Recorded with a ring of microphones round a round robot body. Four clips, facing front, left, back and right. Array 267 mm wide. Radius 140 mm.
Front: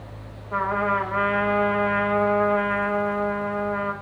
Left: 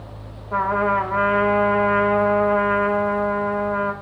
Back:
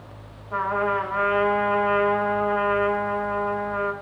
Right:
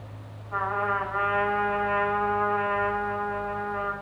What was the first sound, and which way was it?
A trumpet, 75° left.